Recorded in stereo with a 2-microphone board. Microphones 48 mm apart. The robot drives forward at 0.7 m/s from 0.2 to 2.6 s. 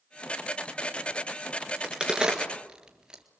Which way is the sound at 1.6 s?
20° right (ahead or behind).